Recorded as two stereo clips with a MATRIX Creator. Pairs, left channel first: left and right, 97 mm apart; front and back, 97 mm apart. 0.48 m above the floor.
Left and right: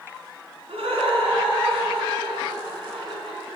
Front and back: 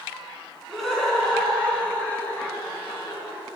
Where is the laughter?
90° right, 4.5 m; by 3.4 s 60° right, 4.5 m.